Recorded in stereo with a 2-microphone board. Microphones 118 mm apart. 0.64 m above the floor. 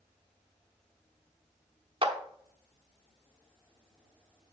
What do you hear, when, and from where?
2.0 s a clap: 50° right (ahead or behind), 0.9 m